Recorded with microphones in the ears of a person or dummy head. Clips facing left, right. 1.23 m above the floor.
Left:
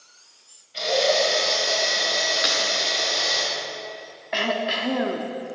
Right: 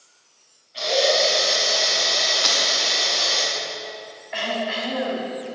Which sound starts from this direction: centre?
Breaking glass, at 2.4 s.